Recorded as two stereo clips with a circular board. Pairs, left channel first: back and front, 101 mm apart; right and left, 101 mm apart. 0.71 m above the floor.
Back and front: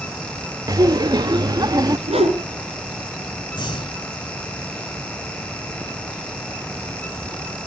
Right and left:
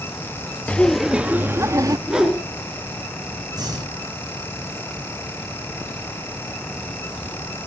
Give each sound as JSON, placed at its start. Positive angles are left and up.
{"t": 0.7, "sound": "laughter", "azimuth_deg": -20, "distance_m": 0.6}
{"t": 2.1, "sound": "a whoosh", "azimuth_deg": 5, "distance_m": 2.5}
{"t": 3.5, "sound": "breathing", "azimuth_deg": 140, "distance_m": 1.6}